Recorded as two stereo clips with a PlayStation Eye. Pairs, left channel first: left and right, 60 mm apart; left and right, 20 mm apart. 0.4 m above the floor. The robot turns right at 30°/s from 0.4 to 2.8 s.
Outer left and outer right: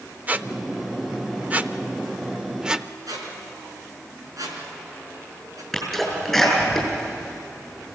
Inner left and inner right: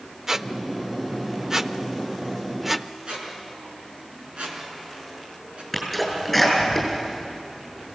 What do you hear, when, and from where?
0.3 s a squeak: 25° right (ahead or behind), 0.5 m; by 2.9 s 10° right (ahead or behind), 0.5 m
3.1 s a squeak: 70° right (ahead or behind), 4 m
5.7 s a sneeze: centre (ahead or behind), 7 m